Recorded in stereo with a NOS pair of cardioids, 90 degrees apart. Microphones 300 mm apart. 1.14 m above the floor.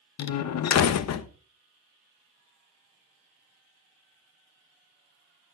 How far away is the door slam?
About 1.1 m.